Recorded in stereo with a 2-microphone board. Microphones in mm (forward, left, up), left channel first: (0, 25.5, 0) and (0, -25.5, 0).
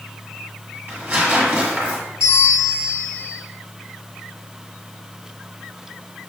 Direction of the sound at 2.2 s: 85° left.